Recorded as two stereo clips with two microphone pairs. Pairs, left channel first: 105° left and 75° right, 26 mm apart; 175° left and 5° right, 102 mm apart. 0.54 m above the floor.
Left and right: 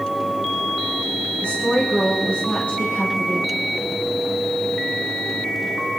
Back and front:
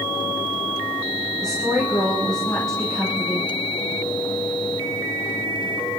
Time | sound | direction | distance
1.4 | a woman speaking | 90° left | 4 m